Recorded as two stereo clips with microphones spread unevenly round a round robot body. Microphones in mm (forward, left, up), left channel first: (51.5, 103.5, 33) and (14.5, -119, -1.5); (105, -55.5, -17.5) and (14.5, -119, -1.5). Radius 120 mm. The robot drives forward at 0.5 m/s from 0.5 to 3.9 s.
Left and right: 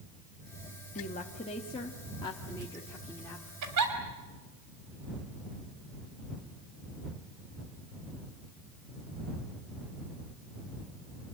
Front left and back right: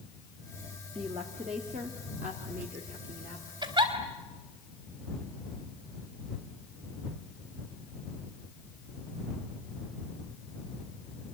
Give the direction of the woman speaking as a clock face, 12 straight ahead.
7 o'clock.